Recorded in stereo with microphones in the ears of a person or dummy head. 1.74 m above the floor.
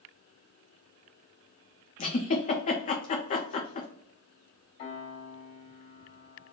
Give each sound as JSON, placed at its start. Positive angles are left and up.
{"t": 2.0, "sound": "a giggle", "side_deg": 40, "distance_m": 0.7}
{"t": 4.8, "sound": "a piano", "side_deg": 45, "distance_m": 2.0}